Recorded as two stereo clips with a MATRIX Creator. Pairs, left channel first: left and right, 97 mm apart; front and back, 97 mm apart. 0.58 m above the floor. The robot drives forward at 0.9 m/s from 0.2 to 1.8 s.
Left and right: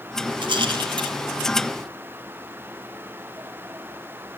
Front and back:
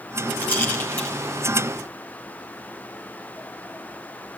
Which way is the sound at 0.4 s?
70° right.